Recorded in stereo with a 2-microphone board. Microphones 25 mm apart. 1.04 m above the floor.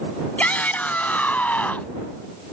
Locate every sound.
0.4 s a shout: 75° left (ahead or behind); by 1.9 s 80° left